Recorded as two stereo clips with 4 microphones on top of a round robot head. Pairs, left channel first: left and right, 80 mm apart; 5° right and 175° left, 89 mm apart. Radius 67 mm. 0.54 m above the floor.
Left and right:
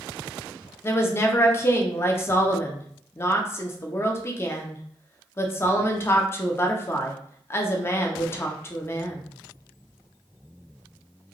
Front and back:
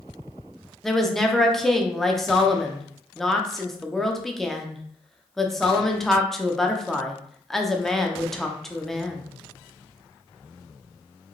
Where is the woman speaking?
80° left, 0.8 m.